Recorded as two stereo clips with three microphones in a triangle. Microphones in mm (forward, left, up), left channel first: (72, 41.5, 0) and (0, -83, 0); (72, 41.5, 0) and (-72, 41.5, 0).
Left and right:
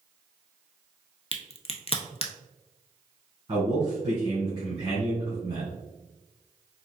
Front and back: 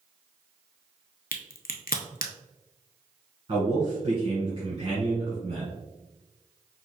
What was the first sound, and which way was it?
A crack, 10° left.